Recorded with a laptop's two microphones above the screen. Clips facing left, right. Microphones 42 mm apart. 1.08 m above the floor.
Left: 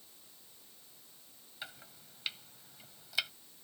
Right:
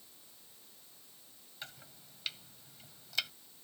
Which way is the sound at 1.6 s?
10° left (ahead or behind).